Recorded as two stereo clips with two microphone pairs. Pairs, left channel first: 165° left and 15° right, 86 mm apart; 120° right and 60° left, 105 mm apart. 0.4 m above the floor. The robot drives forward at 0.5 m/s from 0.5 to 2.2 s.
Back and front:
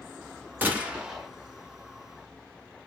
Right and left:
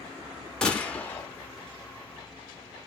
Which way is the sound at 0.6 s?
45° right.